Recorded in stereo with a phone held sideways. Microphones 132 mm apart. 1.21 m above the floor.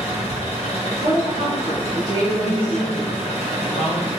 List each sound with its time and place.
0.0 s an engine running: 50° left (ahead or behind), 0.8 m
1.0 s a woman speaking: 40° right (ahead or behind), 1.1 m
2.4 s a man speaking: 80° left, 1.1 m